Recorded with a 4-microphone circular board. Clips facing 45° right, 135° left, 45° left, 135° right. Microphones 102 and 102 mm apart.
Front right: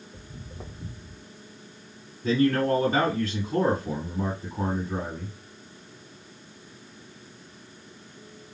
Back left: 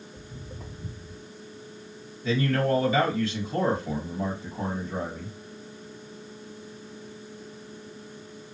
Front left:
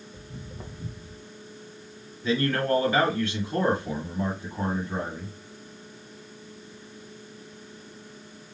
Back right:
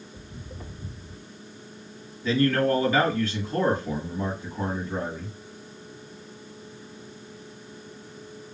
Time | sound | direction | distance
0.1 | footsteps | 15° right | 1.9 m
2.2 | a man speaking | 15° right | 3.5 m